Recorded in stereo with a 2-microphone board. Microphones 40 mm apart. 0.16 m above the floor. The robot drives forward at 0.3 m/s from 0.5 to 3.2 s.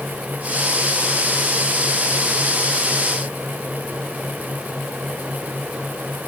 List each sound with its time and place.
Only background noise.